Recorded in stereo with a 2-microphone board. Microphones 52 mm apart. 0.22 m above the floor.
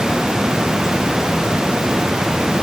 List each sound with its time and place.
Only background noise.